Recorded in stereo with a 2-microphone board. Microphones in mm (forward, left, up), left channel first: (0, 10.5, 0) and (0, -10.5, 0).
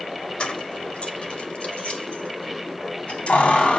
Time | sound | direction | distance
0.4 | keys jangling | 55° left (ahead or behind) | 1.6 m